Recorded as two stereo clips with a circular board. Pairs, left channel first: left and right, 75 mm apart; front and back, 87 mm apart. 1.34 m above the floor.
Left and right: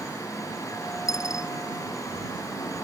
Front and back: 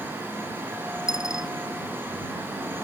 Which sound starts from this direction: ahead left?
A dropped coin, at 1.1 s.